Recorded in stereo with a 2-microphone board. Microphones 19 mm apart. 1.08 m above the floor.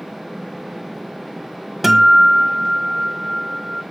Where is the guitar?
15° right (ahead or behind), 1.6 m.